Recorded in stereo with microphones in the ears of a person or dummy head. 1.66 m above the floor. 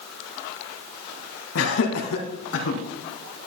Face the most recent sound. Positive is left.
turn(degrees=85)